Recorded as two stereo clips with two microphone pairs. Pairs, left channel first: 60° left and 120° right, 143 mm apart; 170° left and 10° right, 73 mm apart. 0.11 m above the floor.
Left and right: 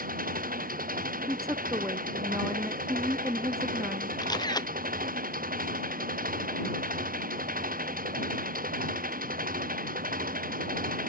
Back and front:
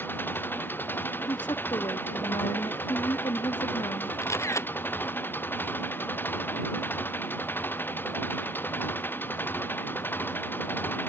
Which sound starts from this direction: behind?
A woman speaking, at 1.3 s.